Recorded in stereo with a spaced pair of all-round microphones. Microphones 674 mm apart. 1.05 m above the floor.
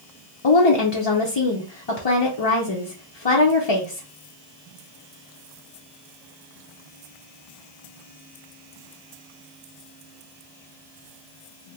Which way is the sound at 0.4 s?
45° left (ahead or behind).